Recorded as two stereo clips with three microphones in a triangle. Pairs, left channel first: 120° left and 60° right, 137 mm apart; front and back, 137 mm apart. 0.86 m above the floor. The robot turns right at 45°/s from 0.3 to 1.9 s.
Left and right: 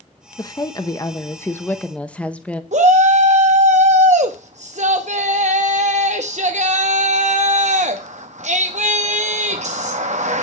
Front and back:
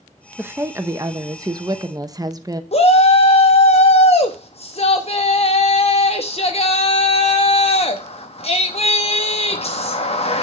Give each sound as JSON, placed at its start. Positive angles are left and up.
{"t": 0.4, "sound": "a woman speaking", "azimuth_deg": 120, "distance_m": 0.9}
{"t": 2.7, "sound": "a shout", "azimuth_deg": -35, "distance_m": 0.8}